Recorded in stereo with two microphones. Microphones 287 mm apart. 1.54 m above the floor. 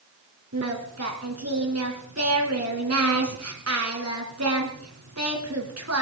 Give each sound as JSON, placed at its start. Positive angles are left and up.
{"t": 0.5, "sound": "singing", "side_deg": -60, "distance_m": 3.0}